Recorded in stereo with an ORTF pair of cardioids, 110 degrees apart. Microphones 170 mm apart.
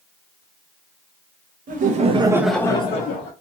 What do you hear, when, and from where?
1.7 s laughter: 55° right, 1.1 m; by 3.3 s 55° left, 1.1 m